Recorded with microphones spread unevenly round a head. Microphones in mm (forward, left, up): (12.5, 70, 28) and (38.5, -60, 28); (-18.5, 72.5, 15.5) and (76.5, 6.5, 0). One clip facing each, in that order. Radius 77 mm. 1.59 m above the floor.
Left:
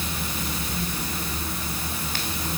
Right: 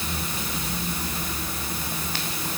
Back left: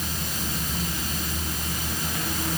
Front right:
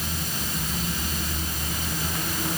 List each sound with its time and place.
Only background noise.